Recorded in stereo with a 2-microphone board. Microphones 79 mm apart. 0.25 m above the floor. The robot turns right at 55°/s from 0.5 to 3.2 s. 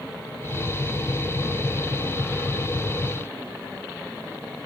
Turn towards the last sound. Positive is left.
No sound to turn to.